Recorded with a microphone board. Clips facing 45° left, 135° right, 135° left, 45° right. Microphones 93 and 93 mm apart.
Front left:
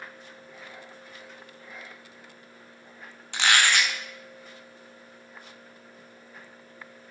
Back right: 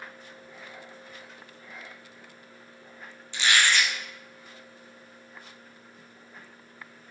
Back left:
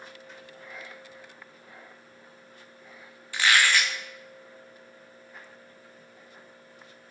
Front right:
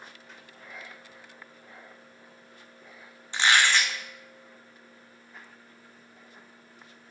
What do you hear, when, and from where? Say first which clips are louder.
3.3 s a squeak: front left 1 dB, even; 20° left, 0.5 m